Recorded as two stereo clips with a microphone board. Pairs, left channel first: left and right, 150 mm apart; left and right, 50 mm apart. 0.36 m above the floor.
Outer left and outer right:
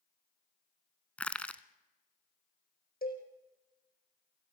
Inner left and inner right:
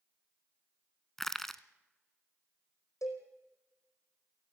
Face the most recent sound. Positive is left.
turn(degrees=85)